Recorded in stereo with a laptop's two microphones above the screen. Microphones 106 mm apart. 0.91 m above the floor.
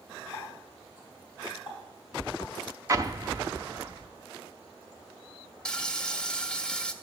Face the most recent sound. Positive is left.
turn(degrees=10)  # may be behind; listen again after turning